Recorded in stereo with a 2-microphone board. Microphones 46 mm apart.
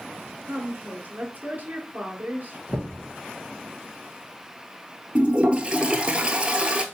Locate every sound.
0.5 s a woman speaking: 40° right (ahead or behind), 1.6 m
2.7 s knocking: 25° left (ahead or behind), 1.5 m
5.2 s a toilet flushing: 25° right (ahead or behind), 0.8 m